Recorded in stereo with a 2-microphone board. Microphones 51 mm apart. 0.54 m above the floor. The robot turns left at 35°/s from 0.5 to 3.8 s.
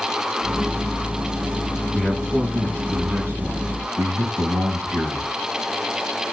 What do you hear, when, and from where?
1.9 s a man speaking: 5° right, 5 m; by 5.3 s 70° right, 5 m